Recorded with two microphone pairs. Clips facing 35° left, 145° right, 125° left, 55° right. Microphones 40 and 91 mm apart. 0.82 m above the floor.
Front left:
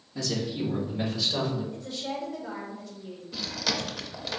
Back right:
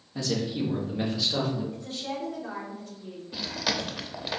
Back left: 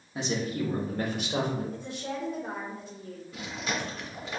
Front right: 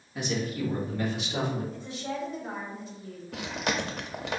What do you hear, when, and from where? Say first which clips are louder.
0.1 s a man speaking: back right 1 dB, even; 175° left, 1.1 m; by 1.6 s 145° left, 1.6 m
1.7 s a woman speaking: even, even; 160° left, 2 m
3.3 s chewing: back right 1 dB, front right 4 dB; 65° right, 0.5 m